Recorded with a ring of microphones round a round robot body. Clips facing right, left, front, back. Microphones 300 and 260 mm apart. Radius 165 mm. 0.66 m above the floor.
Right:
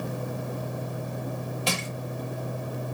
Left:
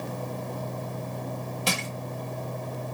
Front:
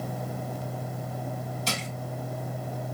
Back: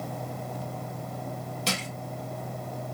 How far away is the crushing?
About 1.5 m.